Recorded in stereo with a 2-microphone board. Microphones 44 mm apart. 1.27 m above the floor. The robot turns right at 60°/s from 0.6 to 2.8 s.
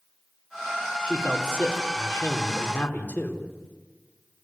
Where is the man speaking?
30° left, 4 m; by 3.5 s 140° left, 4 m.